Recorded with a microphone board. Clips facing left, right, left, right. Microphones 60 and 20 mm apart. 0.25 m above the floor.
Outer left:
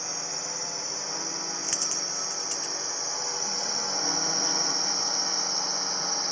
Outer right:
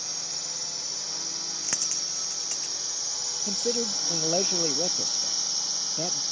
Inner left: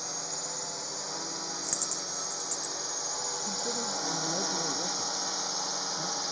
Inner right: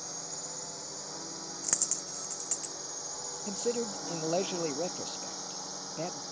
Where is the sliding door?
I don't hear a sliding door.